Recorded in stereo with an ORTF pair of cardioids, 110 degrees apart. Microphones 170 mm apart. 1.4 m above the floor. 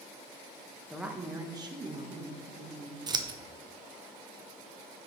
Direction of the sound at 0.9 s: Straight ahead.